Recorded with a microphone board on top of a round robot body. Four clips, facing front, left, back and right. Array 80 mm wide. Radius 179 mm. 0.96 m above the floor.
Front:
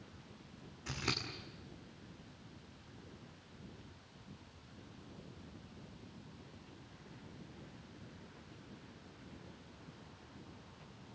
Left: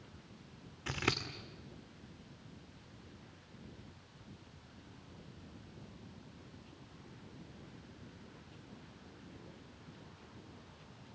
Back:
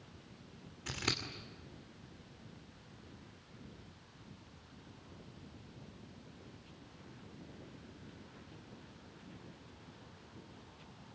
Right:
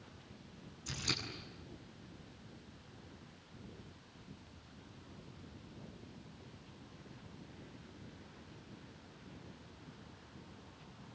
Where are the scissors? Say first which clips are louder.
Left 7 dB, back 1 dB; 95° left, 2.5 m.